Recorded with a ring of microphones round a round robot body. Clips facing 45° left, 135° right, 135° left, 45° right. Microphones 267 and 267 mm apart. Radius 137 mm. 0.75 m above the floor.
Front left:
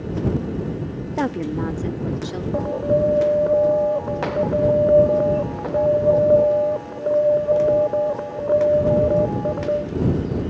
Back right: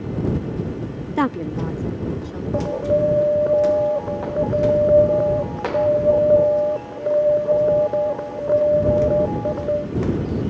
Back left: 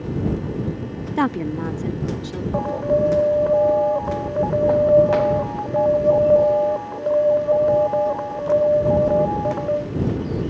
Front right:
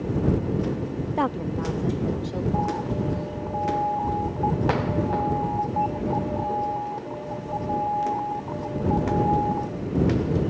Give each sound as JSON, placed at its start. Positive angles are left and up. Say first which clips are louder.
{"t": 1.2, "sound": "a woman speaking", "louder": "back right 1 dB, back left 7 dB", "azimuth_deg": 180}
{"t": 2.5, "sound": "an alarm", "louder": "back right 1 dB, back left 6 dB", "azimuth_deg": 135}